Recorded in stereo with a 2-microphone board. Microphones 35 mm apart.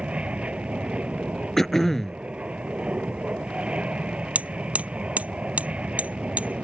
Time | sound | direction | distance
0.0 | an aircraft | 30° right (ahead or behind) | ?
1.6 | throat clearing | 15° left (ahead or behind) | ?
4.3 | hammering | 40° right (ahead or behind) | ?